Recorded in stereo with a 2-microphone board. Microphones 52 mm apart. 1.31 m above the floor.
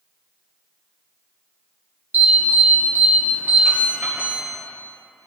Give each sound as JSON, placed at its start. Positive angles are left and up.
{"t": 2.1, "sound": "an alarm", "side_deg": -35, "distance_m": 4.0}